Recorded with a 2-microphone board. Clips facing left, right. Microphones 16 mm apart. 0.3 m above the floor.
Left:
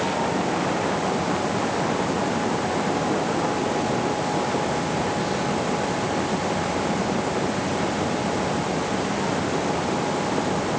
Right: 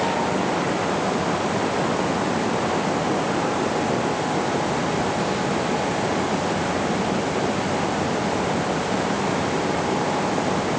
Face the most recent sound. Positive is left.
No sound to turn to.